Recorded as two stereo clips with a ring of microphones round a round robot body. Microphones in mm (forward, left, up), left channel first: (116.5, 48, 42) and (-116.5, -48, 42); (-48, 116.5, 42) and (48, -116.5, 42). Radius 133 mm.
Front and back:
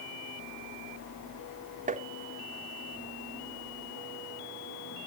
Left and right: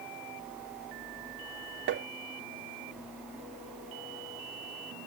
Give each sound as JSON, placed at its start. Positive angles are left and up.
{"t": 1.9, "sound": "tapping", "azimuth_deg": -100}